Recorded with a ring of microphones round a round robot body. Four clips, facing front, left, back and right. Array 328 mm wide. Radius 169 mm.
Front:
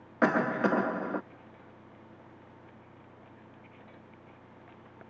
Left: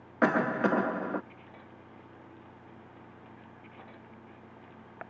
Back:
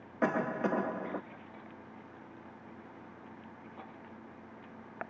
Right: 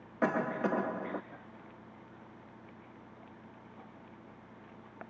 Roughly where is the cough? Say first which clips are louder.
Left 5 dB, front 5 dB; ahead left.